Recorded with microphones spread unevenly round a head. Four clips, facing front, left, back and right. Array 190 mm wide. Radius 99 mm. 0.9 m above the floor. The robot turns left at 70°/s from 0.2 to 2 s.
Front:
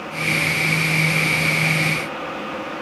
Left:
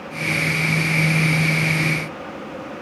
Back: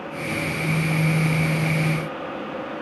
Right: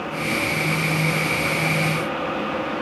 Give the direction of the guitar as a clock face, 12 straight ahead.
No guitar in this recording.